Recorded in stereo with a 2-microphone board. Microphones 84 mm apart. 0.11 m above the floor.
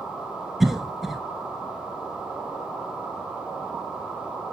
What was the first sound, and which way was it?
A cough, 5° right (ahead or behind).